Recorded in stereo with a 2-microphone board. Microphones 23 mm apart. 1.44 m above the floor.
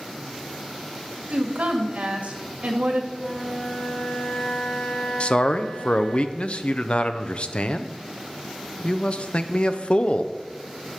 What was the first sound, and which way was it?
A woman speaking, 70° right (ahead or behind).